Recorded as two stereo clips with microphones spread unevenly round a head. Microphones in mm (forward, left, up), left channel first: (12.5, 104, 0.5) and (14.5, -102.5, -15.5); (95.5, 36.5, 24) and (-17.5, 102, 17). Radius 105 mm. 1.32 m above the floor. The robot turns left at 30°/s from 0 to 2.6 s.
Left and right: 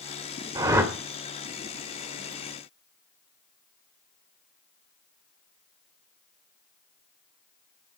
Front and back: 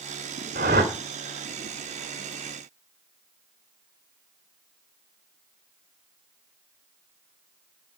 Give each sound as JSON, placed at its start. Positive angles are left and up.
{"t": 0.6, "sound": "a whoosh", "azimuth_deg": -160, "distance_m": 2.0}